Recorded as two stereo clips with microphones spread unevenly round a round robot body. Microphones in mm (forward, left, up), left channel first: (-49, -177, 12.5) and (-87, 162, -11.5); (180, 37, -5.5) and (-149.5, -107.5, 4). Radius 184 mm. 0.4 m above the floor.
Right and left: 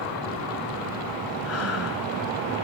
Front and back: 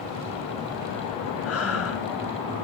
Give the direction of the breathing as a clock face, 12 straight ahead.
1 o'clock.